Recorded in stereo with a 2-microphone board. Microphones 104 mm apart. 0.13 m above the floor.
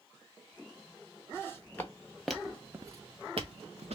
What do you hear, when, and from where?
1.3 s footsteps: 25° left (ahead or behind), 1.4 m; by 4.0 s 85° right, 1.0 m